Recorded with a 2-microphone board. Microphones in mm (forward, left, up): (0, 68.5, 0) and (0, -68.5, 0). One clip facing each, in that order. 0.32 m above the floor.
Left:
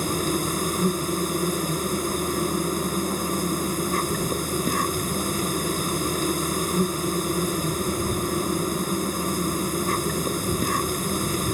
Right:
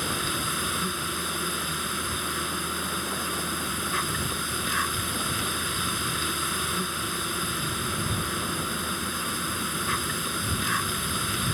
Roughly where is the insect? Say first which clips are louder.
Left 7 dB; left.